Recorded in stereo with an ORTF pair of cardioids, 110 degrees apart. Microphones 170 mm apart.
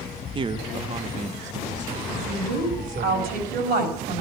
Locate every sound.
0.3 s a man speaking: 30° right, 1.0 m; by 3.1 s 50° right, 4 m
2.1 s a woman speaking: 65° right, 5 m